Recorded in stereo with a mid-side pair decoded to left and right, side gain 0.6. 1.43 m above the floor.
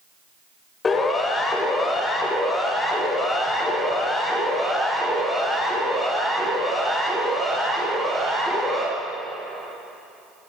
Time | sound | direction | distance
0.8 | a siren | 30° left | 6.5 m